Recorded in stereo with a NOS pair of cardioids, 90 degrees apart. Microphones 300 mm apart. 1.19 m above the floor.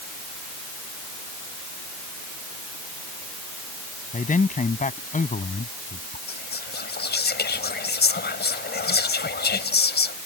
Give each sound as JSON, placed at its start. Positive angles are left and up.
{"t": 4.1, "sound": "a man speaking", "azimuth_deg": 25}
{"t": 6.3, "sound": "whispering", "azimuth_deg": 35}